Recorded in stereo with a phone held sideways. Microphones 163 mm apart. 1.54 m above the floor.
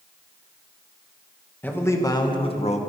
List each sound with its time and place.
1.6 s a man speaking: 10° left (ahead or behind), 2 m; by 2.8 s 45° left (ahead or behind), 1.7 m